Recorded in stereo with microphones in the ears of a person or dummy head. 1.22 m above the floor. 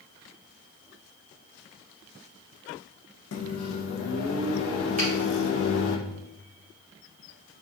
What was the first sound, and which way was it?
A microwave, 75° left (ahead or behind).